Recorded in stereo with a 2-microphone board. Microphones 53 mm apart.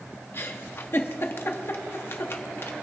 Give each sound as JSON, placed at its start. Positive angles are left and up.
{"t": 0.3, "sound": "a giggle", "side_deg": 45, "distance_m": 1.0}